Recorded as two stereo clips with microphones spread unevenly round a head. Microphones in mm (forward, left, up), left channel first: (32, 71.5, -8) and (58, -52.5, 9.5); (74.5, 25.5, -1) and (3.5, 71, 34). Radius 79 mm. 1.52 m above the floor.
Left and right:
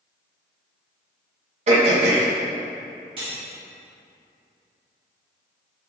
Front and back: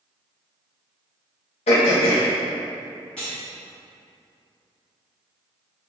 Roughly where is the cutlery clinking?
Behind right.